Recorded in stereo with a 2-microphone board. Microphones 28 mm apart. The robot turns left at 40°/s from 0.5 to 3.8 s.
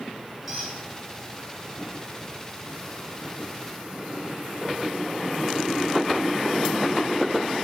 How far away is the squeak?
About 1.4 m.